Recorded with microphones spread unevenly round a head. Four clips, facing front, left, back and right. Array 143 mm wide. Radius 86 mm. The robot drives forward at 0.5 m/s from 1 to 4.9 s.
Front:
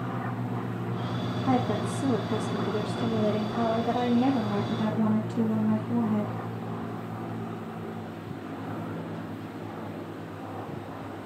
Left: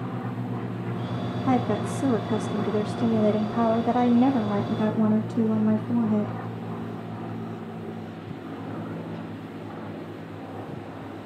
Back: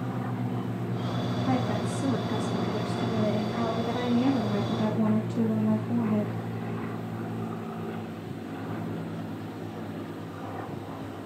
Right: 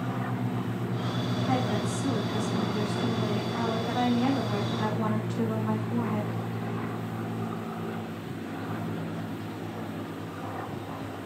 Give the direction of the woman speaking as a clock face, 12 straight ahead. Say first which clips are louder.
Left 6 dB, front 3 dB; 10 o'clock.